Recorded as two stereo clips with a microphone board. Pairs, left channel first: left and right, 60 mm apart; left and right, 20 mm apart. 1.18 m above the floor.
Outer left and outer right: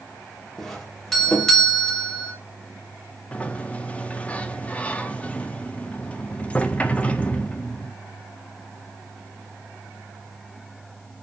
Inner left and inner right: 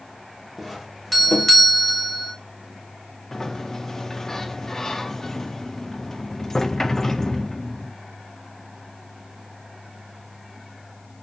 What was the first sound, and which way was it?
A doorbell, 5° left (ahead or behind).